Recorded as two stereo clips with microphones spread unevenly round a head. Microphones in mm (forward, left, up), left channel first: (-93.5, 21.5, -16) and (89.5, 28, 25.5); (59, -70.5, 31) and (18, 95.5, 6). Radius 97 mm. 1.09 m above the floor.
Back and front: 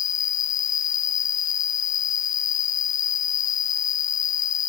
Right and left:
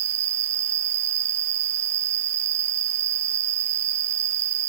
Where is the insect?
165° left.